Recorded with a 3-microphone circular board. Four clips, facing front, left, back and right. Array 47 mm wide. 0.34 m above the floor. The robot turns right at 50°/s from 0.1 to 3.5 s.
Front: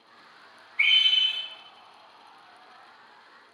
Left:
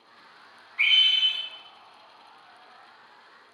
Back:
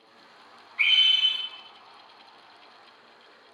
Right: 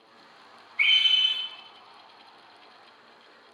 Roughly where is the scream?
Behind left.